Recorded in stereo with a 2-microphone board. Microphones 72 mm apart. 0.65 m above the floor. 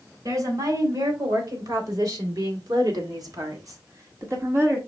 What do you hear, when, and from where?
0.2 s a woman speaking: 60° right (ahead or behind), 3.5 m; by 4.8 s 35° right (ahead or behind), 1.8 m